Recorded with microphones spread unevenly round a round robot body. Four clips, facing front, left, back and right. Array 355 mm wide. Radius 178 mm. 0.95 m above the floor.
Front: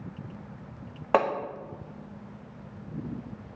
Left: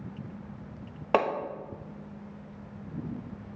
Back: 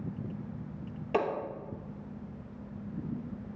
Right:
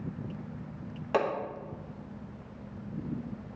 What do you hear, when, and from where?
1.1 s hammering: 35° left, 1.1 m